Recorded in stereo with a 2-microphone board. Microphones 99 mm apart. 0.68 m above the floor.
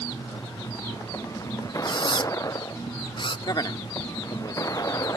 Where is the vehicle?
35° left (ahead or behind).